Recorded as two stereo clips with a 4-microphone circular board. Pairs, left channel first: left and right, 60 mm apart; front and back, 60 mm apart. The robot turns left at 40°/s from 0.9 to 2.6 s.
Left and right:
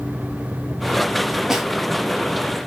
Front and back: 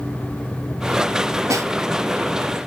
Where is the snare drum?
170° right, 0.6 m; by 1.7 s straight behind, 0.6 m.